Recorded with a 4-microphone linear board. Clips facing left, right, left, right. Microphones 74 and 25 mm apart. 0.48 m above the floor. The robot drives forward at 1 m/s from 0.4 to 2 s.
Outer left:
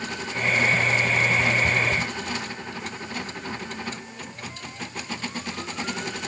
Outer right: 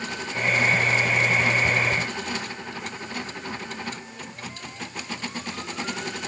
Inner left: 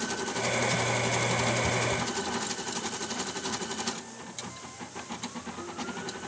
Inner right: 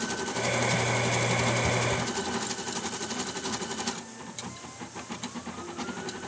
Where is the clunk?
I don't hear a clunk.